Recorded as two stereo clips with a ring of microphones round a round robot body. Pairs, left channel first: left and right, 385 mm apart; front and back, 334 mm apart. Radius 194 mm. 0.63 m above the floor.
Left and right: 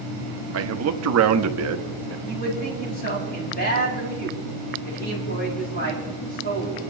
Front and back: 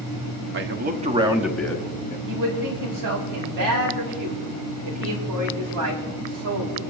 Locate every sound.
0.5 s a man speaking: 135° right, 1.1 m; by 2.2 s 55° right, 1.0 m
2.3 s a man speaking: 155° left, 5.5 m